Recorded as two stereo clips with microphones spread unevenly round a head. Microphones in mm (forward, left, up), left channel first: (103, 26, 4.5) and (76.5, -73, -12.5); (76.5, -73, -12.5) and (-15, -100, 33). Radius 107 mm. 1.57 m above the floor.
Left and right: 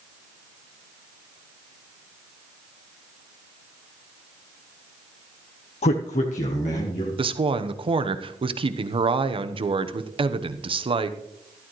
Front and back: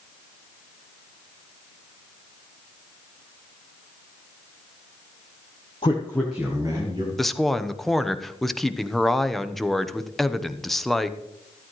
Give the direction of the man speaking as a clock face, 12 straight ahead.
10 o'clock.